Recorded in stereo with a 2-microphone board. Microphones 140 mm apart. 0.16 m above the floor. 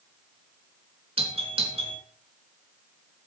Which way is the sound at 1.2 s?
45° right (ahead or behind).